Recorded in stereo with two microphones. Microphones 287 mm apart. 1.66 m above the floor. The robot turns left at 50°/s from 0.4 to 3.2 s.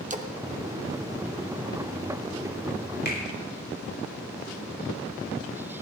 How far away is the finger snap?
About 5 m.